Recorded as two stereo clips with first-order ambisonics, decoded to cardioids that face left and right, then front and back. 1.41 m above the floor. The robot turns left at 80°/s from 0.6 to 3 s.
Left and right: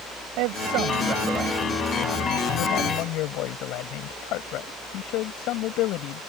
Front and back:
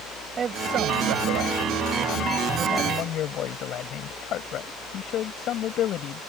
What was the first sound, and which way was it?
A man speaking, 115° right.